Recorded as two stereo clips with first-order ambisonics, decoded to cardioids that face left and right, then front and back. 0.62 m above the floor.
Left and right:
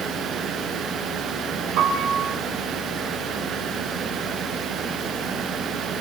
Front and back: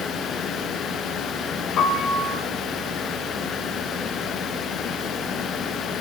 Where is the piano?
55° right, 3.5 m.